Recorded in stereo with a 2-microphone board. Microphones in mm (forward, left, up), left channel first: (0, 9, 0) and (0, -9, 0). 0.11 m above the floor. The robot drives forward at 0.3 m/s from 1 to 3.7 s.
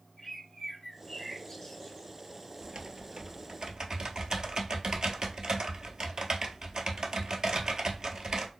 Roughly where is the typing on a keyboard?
Right.